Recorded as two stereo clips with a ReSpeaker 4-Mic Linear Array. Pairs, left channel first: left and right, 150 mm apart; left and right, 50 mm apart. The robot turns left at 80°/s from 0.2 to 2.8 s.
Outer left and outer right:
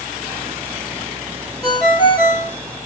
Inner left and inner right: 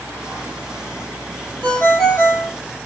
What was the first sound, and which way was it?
A ringtone, 135° left.